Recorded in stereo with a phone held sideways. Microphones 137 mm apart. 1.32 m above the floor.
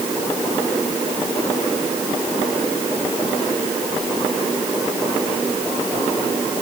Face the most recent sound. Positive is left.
No sound to turn to.